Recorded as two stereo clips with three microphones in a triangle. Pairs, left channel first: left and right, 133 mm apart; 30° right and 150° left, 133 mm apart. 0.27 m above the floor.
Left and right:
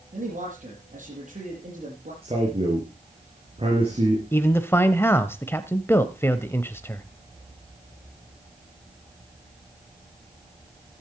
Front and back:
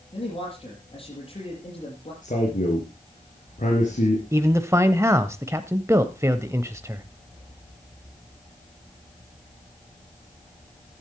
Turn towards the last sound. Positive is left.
turn(degrees=130)